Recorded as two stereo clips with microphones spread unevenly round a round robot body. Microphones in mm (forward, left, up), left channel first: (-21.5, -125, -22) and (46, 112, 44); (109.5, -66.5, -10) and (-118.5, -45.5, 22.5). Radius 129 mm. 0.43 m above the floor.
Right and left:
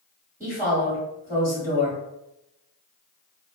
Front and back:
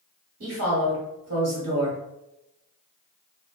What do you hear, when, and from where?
0.4 s a woman speaking: straight behind, 1.4 m